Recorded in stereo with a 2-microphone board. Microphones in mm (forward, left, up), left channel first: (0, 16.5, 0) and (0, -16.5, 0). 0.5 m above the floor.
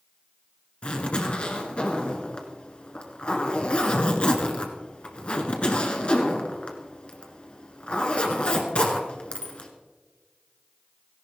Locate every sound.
0.8 s a zipper: 35° left (ahead or behind), 1.6 m